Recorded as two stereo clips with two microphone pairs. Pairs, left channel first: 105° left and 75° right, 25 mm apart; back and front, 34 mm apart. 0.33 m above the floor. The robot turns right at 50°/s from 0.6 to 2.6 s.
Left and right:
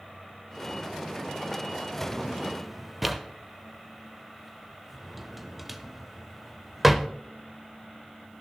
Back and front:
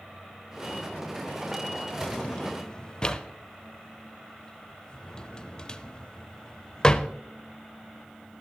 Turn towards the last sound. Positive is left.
turn(degrees=-145)